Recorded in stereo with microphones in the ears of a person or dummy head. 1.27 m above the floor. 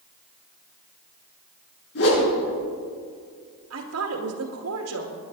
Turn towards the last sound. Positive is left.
turn(degrees=-85)